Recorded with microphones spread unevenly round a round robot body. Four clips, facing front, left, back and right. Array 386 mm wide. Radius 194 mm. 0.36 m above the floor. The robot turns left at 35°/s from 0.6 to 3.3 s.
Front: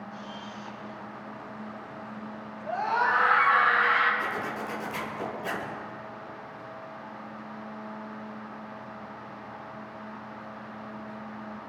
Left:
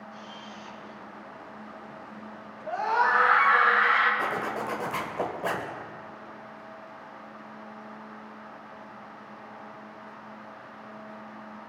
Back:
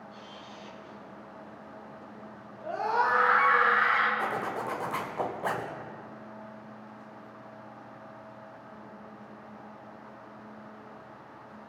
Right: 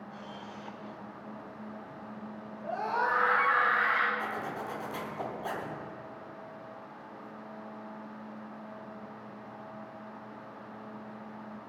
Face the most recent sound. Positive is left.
turn(degrees=115)